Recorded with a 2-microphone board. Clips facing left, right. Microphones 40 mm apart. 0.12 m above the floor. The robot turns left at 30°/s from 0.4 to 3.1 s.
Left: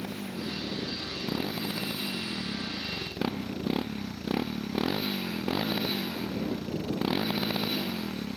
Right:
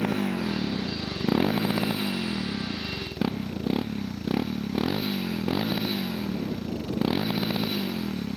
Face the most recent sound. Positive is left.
turn(degrees=180)